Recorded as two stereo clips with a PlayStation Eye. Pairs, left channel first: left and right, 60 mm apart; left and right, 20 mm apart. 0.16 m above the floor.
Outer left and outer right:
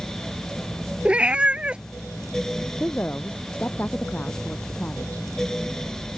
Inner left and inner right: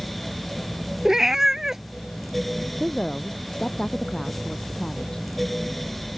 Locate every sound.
1.1 s a cat meowing: 20° right (ahead or behind)
2.8 s a woman speaking: 30° left (ahead or behind)